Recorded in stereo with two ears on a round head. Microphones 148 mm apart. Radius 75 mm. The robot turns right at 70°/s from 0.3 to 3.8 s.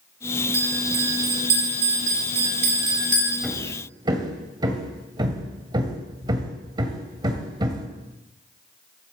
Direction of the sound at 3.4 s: Centre (ahead or behind).